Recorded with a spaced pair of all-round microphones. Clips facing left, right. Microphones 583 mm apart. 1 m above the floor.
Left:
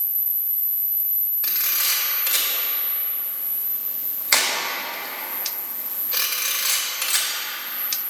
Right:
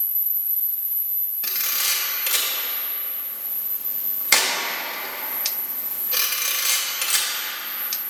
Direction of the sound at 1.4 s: 55° right (ahead or behind).